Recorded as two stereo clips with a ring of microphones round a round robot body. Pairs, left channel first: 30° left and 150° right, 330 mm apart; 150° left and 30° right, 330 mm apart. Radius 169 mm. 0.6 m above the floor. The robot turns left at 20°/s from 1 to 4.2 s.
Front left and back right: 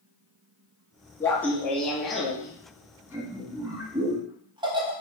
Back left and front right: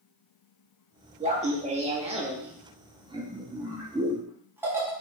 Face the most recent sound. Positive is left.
turn(degrees=-100)